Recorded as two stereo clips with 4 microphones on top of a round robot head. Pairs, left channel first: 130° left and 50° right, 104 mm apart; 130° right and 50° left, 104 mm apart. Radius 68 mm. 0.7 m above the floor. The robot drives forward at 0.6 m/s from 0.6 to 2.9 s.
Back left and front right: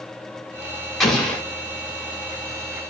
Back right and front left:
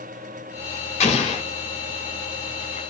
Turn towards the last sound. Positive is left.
turn(degrees=-160)